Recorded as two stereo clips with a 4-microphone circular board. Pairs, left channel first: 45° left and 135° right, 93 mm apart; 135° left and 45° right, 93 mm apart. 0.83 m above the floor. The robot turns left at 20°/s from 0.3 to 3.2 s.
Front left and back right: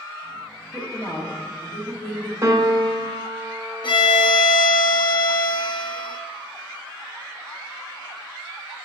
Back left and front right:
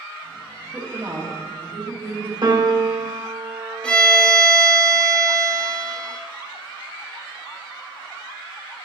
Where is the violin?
60° left, 0.9 m.